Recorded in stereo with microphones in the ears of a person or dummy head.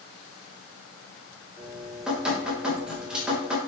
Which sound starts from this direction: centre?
Dripping, at 1.6 s.